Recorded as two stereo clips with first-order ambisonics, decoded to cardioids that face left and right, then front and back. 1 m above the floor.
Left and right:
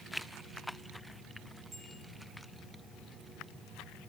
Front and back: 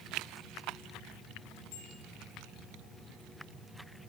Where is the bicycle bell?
10° right, 6.5 m.